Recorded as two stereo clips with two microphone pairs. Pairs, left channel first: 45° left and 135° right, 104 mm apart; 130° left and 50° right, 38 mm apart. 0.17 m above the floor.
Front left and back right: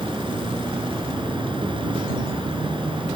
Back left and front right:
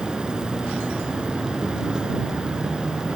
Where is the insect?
115° right.